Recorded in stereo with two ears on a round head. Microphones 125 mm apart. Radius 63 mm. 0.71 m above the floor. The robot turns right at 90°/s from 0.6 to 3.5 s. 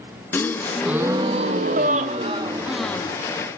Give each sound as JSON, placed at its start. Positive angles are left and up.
{"t": 0.3, "sound": "a gasp", "azimuth_deg": 160, "distance_m": 0.5}